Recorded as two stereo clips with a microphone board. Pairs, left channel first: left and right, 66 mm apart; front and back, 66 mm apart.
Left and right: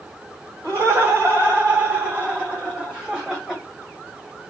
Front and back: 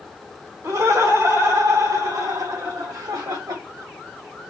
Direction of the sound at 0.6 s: 140° right.